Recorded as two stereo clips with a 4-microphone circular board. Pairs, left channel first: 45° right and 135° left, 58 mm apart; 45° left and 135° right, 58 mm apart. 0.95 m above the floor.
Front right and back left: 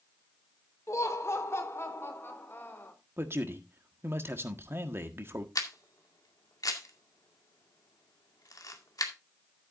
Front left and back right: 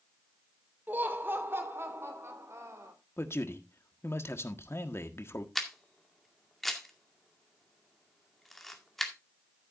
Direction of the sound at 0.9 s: 75° right.